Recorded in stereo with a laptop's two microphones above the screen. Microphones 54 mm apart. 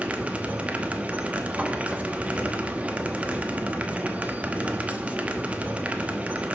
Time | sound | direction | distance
0.0 | a machine running | 25° right (ahead or behind) | 1.0 m